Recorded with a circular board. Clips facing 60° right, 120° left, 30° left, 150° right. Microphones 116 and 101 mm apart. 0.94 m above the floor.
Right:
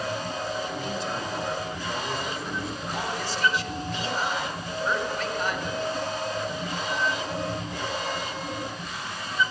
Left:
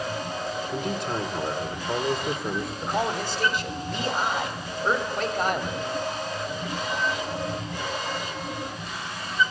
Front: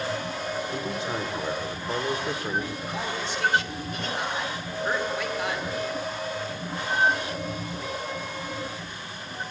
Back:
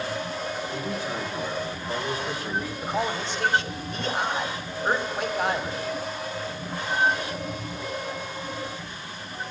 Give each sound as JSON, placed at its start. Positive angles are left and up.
{"t": 0.7, "sound": "a man speaking", "azimuth_deg": 95, "distance_m": 2.5}
{"t": 2.8, "sound": "a man speaking", "azimuth_deg": 155, "distance_m": 2.5}